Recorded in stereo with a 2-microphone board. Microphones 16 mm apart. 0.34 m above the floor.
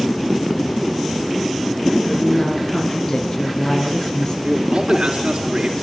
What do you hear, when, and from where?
2.0 s a woman speaking: 40° left (ahead or behind), 4.5 m
4.4 s a man speaking: 70° right (ahead or behind), 4.5 m